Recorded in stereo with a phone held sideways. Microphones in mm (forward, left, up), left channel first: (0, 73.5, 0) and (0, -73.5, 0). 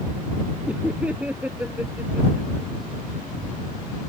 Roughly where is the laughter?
Centre.